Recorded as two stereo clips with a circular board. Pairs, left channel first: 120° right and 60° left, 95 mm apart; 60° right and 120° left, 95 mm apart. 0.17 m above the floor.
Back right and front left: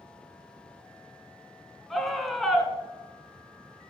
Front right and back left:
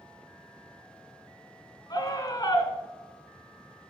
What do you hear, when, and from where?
1.9 s a scream: 30° right, 1.9 m